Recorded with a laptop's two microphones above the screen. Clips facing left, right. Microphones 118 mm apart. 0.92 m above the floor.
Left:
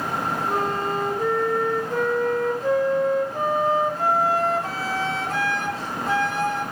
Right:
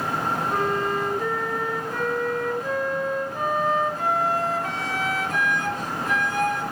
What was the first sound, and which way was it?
A flute, 30° left (ahead or behind).